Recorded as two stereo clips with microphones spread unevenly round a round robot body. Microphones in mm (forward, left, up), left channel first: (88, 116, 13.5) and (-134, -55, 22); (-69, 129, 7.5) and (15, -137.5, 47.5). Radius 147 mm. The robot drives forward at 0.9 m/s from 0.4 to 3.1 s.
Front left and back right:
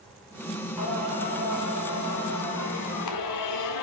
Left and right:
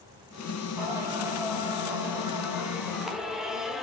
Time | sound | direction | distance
0.8 | singing | 10° left | 3.5 m